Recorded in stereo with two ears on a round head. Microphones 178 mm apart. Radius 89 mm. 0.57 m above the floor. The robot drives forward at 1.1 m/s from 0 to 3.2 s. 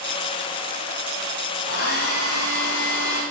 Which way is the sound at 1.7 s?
90° left.